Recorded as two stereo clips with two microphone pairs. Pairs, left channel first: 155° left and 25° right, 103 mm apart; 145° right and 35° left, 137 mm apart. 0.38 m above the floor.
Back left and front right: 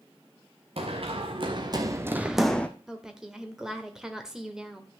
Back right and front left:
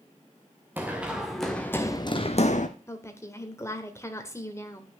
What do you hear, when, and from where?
0.8 s running footsteps: 45° right, 2 m; by 2.7 s 130° right, 1.2 m
2.9 s a woman speaking: 105° right, 1.4 m